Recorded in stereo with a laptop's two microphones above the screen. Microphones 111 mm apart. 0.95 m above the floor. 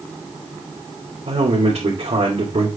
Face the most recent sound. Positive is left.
turn(degrees=-80)